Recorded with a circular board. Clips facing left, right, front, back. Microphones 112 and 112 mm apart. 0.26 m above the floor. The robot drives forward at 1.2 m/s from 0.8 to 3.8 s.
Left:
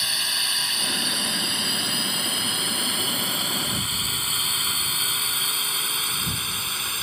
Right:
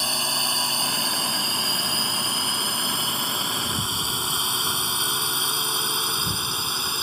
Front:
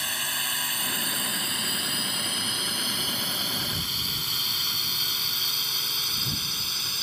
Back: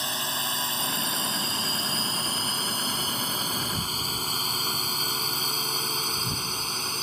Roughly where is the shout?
No shout in this recording.